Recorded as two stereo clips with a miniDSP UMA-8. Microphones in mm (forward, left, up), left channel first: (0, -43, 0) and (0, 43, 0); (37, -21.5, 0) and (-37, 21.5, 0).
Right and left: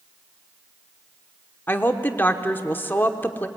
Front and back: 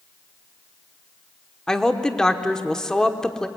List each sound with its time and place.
1.7 s a woman speaking: 100° right, 1.0 m